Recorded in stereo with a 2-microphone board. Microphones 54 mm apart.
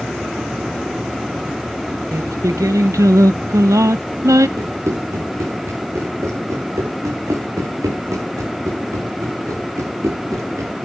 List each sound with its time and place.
2.1 s singing: 75° right (ahead or behind), 0.9 m
4.6 s running footsteps: 65° right (ahead or behind), 7 m; by 10.8 s 80° right, 7 m